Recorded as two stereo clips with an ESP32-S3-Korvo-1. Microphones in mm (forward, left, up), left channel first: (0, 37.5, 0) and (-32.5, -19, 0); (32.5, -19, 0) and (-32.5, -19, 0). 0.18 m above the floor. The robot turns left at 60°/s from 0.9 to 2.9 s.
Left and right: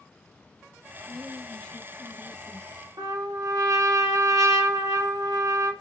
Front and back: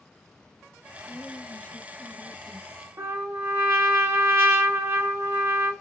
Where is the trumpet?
130° right, 0.8 m.